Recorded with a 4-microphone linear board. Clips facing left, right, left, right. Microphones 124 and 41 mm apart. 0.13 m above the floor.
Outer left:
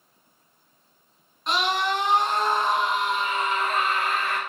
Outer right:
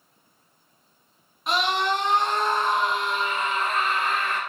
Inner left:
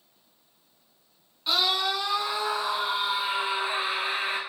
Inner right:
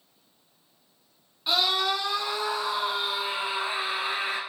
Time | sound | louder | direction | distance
1.5 | a scream | outer right 1 dB, inner right 1 dB | 5° right (ahead or behind) | 1.2 m